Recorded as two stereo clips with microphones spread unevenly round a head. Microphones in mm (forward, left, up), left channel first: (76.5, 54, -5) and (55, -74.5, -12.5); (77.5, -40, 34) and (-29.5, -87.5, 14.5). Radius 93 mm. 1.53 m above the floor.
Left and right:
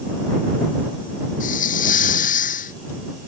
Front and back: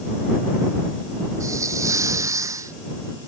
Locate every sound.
1.4 s a hiss: 130° left